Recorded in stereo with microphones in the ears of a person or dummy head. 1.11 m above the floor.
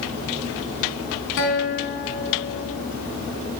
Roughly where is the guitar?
Left.